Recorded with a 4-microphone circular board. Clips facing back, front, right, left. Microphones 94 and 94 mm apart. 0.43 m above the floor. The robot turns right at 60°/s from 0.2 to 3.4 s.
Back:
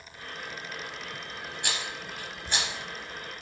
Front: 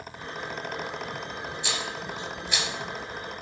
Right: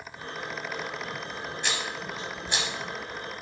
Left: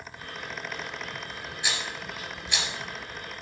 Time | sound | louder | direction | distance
1.6 | a rattle | front 2 dB, even | 175° left | 2 m